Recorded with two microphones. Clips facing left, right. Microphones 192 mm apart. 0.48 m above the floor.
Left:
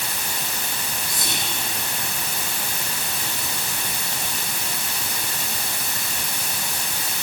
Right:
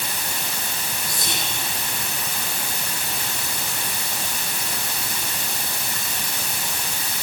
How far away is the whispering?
About 6.5 m.